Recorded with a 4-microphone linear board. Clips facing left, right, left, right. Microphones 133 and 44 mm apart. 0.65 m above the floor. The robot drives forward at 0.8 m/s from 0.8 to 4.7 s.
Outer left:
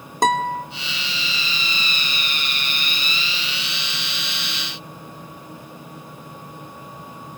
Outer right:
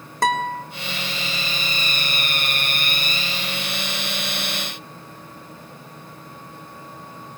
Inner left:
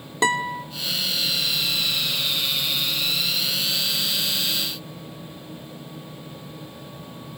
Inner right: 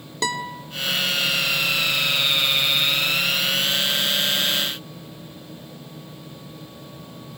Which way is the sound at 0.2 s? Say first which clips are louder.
Outer left 2 dB, inner left 5 dB; 20° left (ahead or behind).